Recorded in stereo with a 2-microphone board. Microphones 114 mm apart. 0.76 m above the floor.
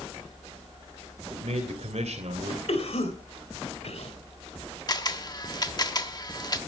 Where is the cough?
70° left (ahead or behind), 3 m.